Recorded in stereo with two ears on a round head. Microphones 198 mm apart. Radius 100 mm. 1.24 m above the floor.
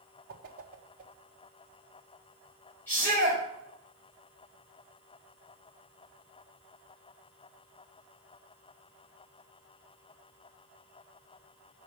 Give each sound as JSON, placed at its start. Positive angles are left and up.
{"t": 0.3, "sound": "a whoosh", "side_deg": -40, "distance_m": 1.4}
{"t": 2.9, "sound": "a shout", "side_deg": 10, "distance_m": 4.5}